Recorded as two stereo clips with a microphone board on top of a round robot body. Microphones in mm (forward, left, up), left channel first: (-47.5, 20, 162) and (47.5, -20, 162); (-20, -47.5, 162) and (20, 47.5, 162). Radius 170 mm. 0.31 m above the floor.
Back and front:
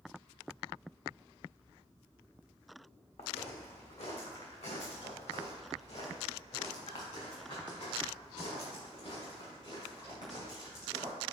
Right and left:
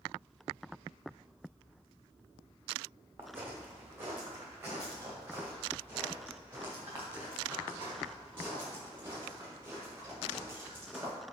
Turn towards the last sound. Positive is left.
turn(degrees=135)